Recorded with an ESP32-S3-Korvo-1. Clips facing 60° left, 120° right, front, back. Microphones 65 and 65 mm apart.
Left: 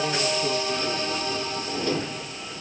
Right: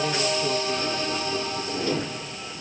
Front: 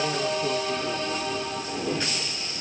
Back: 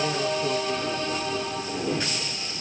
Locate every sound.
Only background noise.